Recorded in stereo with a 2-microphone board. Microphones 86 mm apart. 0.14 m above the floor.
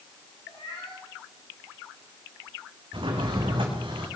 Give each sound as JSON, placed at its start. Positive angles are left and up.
{"t": 0.5, "sound": "a cat meowing", "side_deg": 75, "distance_m": 6.5}
{"t": 2.9, "sound": "a drawer", "side_deg": -85, "distance_m": 4.0}